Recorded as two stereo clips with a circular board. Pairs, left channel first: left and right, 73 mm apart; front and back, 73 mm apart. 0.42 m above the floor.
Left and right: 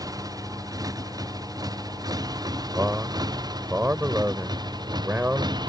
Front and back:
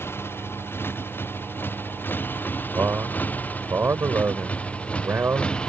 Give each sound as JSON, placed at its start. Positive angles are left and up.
{"t": 0.0, "sound": "a motorcycle", "azimuth_deg": -55}
{"t": 2.8, "sound": "a man speaking", "azimuth_deg": -140}